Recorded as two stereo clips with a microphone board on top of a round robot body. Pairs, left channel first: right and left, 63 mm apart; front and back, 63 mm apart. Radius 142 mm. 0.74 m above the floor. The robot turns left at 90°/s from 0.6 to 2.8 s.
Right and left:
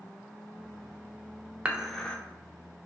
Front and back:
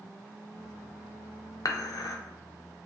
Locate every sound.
1.6 s dishes clattering: 25° left, 0.5 m; by 2.2 s 25° right, 0.5 m